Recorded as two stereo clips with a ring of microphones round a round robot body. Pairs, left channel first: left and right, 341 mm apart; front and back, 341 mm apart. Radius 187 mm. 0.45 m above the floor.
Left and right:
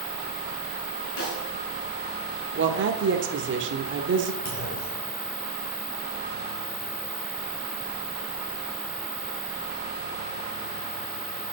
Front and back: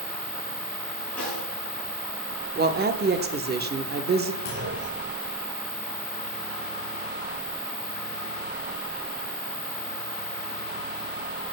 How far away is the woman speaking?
About 1.1 m.